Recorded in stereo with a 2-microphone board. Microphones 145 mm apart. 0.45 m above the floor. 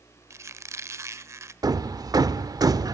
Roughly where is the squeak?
Centre.